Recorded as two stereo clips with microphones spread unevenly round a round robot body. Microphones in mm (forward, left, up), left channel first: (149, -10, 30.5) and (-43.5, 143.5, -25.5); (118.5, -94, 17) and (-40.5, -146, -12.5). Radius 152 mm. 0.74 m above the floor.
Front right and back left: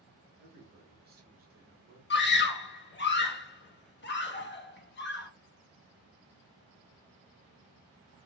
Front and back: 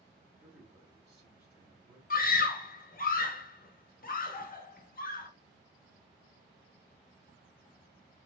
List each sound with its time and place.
0.4 s a man speaking: 125° left, 1.5 m
2.1 s a scream: 5° left, 1.0 m